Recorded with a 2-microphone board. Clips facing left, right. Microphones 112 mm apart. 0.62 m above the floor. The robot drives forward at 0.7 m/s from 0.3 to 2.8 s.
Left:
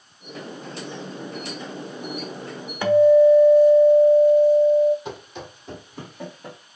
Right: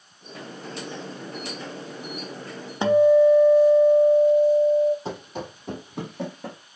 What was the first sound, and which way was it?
A guitar, 25° right (ahead or behind).